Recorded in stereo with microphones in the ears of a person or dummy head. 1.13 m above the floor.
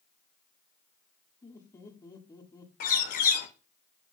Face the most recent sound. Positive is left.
turn(degrees=45)  # may be behind; listen again after turning